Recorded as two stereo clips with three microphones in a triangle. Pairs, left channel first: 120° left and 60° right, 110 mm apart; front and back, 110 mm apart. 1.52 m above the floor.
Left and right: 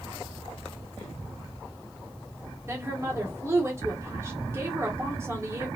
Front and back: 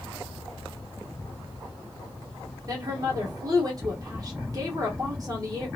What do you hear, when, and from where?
2.7 s a woman speaking: 125° right, 1.1 m